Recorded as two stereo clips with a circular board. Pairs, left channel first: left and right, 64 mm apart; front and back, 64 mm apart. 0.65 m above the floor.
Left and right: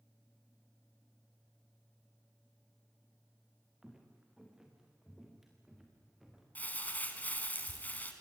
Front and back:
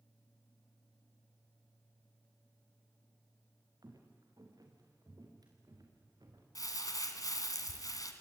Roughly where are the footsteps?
Behind.